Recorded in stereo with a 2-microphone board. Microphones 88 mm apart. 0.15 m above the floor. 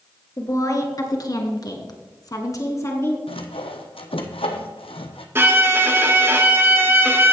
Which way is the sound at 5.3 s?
25° right (ahead or behind).